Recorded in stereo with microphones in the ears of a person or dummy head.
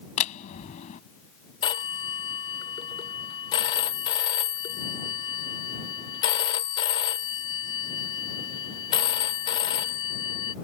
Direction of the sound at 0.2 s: 35° left (ahead or behind).